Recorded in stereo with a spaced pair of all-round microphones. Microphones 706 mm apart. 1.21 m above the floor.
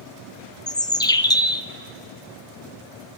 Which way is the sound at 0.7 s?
5° left (ahead or behind).